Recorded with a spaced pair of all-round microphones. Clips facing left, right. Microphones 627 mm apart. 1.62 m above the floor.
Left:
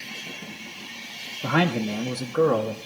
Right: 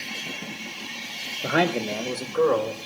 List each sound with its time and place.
1.4 s a man speaking: 25° left (ahead or behind), 1.2 m; by 2.8 s 50° left (ahead or behind), 2 m